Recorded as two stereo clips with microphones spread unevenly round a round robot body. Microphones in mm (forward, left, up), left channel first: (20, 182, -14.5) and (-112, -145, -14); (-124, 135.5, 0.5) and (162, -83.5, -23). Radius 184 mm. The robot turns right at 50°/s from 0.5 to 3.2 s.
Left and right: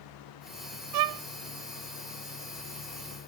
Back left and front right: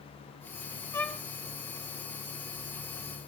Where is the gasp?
I don't hear a gasp.